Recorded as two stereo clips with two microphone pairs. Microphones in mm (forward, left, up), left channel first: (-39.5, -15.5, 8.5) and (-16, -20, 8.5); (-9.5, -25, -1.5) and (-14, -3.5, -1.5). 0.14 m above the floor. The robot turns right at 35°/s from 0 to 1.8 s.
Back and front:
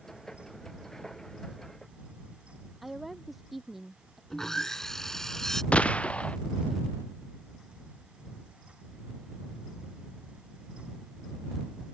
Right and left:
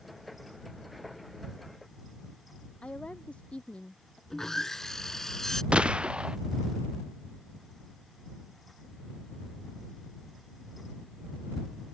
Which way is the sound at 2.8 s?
100° right.